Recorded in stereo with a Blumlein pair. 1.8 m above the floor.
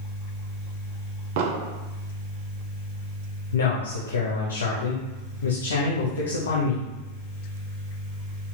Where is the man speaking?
65° left, 0.8 m.